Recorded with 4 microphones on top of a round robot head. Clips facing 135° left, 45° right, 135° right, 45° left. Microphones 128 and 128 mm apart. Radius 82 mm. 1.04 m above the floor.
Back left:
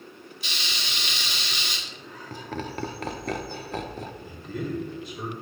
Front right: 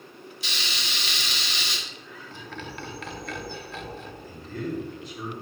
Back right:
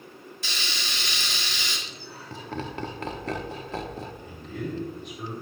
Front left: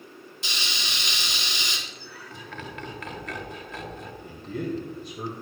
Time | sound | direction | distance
0.4 | frying | 20° right | 2.5 m
1.9 | laughter | 175° left | 1.0 m
4.2 | a man speaking | 60° left | 1.8 m